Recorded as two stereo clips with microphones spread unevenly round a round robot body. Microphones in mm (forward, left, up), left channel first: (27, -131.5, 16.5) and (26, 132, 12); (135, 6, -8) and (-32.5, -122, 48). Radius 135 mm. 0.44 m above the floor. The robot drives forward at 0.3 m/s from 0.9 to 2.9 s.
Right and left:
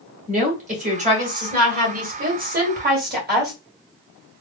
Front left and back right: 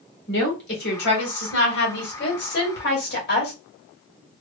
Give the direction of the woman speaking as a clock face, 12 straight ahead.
11 o'clock.